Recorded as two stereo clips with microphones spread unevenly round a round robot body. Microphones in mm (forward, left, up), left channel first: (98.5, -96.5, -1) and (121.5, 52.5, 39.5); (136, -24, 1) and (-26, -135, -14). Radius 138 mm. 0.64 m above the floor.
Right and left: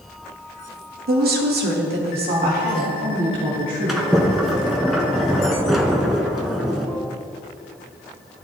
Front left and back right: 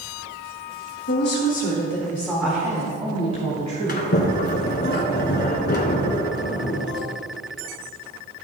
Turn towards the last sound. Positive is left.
turn(degrees=0)